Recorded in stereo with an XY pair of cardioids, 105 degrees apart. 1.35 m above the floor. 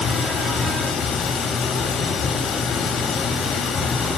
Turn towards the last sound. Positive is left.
turn(degrees=70)